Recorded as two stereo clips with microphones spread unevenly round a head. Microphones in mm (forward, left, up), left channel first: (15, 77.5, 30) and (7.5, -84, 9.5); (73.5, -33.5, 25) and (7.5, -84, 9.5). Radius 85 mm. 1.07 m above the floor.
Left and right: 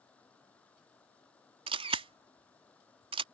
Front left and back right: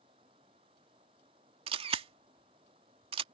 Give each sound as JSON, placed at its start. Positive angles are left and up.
{"t": 0.0, "sound": "running water", "azimuth_deg": 170}
{"t": 1.7, "sound": "a camera shutter", "azimuth_deg": -155}